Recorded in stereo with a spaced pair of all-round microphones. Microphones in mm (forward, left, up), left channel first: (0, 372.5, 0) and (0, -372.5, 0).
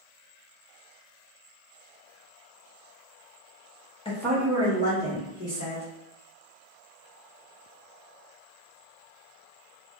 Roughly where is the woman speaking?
Centre.